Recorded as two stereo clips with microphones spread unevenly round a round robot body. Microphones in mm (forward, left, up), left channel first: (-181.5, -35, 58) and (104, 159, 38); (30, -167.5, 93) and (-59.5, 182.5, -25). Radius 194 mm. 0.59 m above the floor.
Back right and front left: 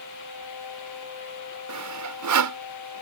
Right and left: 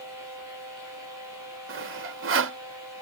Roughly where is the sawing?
Ahead left.